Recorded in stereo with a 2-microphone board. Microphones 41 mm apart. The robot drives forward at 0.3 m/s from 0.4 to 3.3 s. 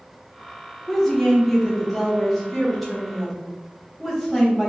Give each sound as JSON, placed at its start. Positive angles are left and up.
{"t": 0.9, "sound": "a woman speaking", "side_deg": 5, "distance_m": 0.9}